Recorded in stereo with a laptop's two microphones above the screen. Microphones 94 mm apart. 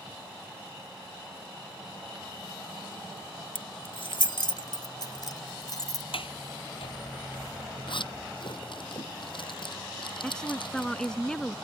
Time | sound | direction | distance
3.5 | keys jangling | 70° left (ahead or behind) | ?
6.1 | a sliding door | 75° left (ahead or behind) | ?
7.9 | a zipper | 65° left (ahead or behind) | ?
10.2 | a woman speaking | 10° left (ahead or behind) | ?